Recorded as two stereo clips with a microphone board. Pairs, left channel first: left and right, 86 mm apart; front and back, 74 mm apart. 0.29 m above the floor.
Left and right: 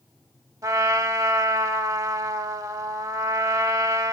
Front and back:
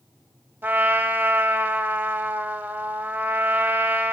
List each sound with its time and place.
0.6 s a trumpet: 125° right, 0.6 m